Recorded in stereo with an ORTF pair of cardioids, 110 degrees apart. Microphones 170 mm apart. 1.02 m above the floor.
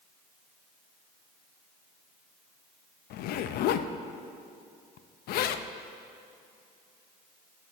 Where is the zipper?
65° left, 0.5 m.